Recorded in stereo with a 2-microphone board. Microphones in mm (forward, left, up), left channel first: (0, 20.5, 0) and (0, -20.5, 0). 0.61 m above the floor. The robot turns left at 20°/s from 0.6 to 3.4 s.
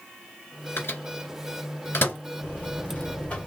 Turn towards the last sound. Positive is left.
turn(degrees=20)  # may be behind; listen again after turning